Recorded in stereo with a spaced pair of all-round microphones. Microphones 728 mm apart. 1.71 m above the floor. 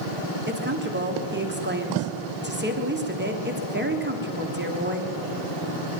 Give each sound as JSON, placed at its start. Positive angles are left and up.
{"t": 0.5, "sound": "a woman speaking", "side_deg": -15, "distance_m": 1.3}